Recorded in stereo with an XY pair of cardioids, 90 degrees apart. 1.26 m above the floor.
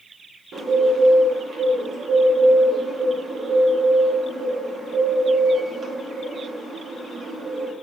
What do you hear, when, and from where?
0.5 s a bird: 60° right, 1.6 m